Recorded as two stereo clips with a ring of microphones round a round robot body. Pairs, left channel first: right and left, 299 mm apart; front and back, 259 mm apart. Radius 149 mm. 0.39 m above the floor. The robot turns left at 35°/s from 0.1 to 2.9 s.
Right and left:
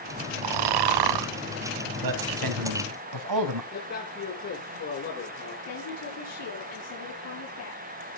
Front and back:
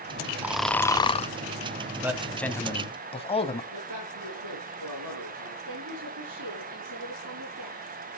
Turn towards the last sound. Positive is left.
turn(degrees=-130)